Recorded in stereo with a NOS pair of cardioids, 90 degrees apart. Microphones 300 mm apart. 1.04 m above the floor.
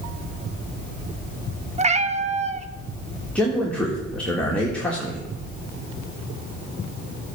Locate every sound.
1.8 s a cat meowing: 25° right, 0.6 m
3.4 s a man speaking: 5° left, 1.4 m